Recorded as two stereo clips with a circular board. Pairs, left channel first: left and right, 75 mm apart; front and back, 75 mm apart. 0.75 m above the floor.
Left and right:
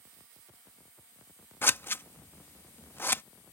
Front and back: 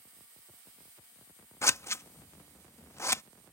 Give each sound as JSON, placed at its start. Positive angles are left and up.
{"t": 1.6, "sound": "scissors", "azimuth_deg": 40}